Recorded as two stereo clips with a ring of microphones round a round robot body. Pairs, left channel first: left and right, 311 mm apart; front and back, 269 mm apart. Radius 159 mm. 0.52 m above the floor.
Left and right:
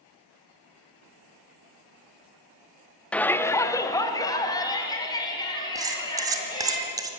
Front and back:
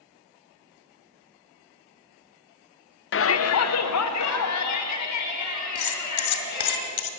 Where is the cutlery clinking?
10° right, 1.7 m.